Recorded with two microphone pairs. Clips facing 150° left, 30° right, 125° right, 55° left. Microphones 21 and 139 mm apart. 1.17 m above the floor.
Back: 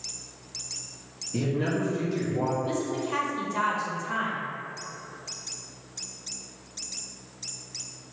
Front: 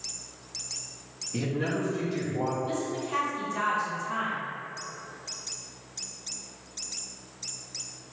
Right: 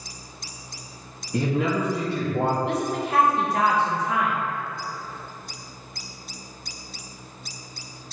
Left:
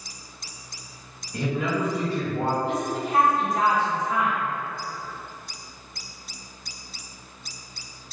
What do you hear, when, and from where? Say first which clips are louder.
1.3 s a man speaking: back 2 dB, right 3 dB; 115° right, 2.0 m; by 2.5 s 110° right, 1.4 m
2.6 s a woman speaking: back 2 dB, right 1 dB; 135° right, 0.9 m